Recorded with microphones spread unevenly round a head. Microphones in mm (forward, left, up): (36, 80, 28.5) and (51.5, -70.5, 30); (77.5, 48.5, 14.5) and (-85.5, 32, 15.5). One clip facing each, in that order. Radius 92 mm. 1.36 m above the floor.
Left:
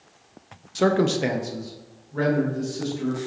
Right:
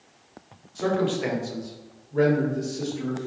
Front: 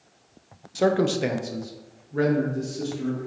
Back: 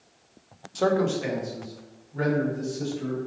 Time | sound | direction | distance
0.8 | a man speaking | 90° left | 0.6 m